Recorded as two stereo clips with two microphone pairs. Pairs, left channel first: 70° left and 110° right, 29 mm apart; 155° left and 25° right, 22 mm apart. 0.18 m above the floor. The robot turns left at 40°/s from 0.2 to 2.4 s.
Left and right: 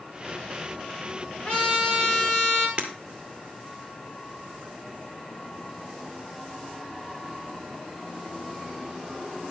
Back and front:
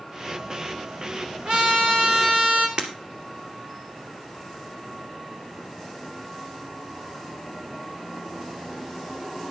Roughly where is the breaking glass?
Ahead right.